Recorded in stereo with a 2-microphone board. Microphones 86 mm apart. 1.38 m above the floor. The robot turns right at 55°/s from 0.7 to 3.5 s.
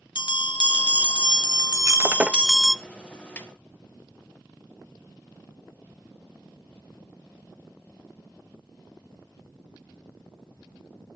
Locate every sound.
0.1 s a bell: 75° left, 0.7 m; by 2.8 s 170° right, 0.7 m
1.8 s breaking glass: 50° right, 0.7 m; by 2.7 s 5° left, 0.7 m
3.4 s a snare drum: 20° left (ahead or behind), 1.6 m; by 3.5 s 25° left (ahead or behind), 1.6 m